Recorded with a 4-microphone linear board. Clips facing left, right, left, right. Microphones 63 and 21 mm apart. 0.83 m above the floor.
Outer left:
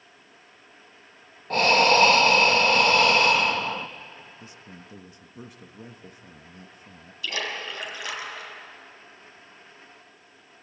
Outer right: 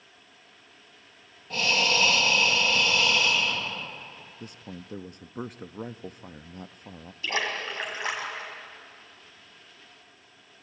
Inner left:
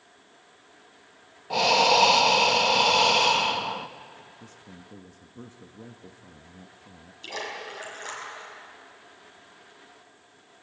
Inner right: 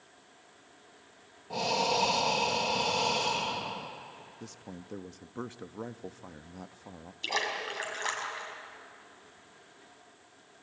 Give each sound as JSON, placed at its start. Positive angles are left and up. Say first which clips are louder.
{"t": 1.5, "sound": "breathing", "louder": "outer left 7 dB, inner left 9 dB", "side_deg": 50, "distance_m": 0.9}
{"t": 4.4, "sound": "a man speaking", "louder": "outer right 3 dB, inner right 2 dB", "side_deg": -50, "distance_m": 0.7}
{"t": 7.2, "sound": "a splash", "louder": "outer right 2 dB, inner right 3 dB", "side_deg": -30, "distance_m": 4.0}